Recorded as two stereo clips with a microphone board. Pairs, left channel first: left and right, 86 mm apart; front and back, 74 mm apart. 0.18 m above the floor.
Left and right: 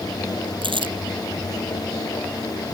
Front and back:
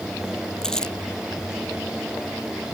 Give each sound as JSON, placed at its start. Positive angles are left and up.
{"t": 0.6, "sound": "crumpling", "azimuth_deg": -80}